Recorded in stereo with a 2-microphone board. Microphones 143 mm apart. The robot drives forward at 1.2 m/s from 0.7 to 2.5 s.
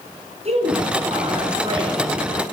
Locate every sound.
0.5 s a woman speaking: 45° right (ahead or behind), 4.5 m; by 2.4 s 30° right (ahead or behind), 6 m